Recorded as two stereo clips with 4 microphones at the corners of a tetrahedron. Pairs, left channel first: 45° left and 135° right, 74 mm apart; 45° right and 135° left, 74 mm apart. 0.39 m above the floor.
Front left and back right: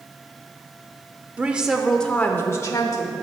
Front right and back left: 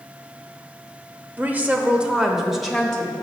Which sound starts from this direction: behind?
A woman speaking, at 1.4 s.